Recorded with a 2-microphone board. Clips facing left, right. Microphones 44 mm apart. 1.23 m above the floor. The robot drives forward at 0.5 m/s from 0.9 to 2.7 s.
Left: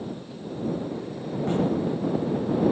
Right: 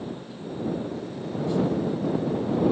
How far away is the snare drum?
About 1.7 m.